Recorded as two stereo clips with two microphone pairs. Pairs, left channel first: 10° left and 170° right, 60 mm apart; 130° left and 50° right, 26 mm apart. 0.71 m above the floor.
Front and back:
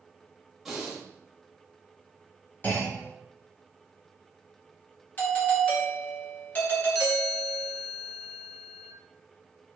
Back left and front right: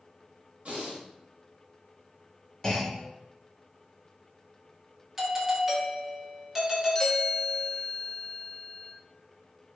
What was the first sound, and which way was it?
Breathing, 80° right.